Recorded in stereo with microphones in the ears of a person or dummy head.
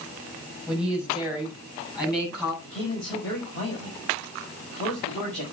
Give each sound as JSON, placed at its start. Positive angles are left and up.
{"t": 0.7, "sound": "a woman speaking", "side_deg": 25, "distance_m": 7.0}
{"t": 2.6, "sound": "a man speaking", "side_deg": 45, "distance_m": 6.0}